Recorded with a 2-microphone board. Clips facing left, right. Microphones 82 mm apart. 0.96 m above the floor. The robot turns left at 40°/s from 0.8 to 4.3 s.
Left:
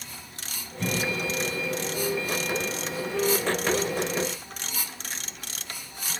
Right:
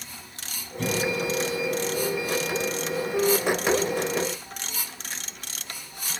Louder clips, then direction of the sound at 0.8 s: Right 3 dB; 75° right (ahead or behind).